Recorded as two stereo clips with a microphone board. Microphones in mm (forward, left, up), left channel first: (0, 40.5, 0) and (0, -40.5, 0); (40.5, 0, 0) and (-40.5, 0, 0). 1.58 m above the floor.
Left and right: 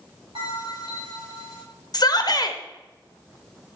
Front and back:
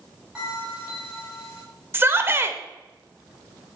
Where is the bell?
100° right, 4 m.